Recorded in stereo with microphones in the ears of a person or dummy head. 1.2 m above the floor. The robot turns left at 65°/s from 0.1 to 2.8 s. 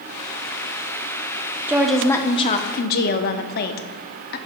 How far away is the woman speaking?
About 0.6 m.